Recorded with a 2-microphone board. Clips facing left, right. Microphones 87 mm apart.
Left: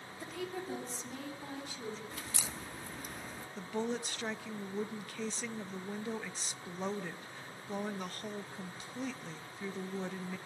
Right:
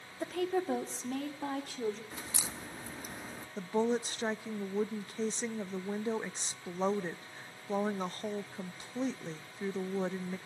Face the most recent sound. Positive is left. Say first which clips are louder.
# right 6 dB
turn(degrees=-30)  # may be behind; listen again after turning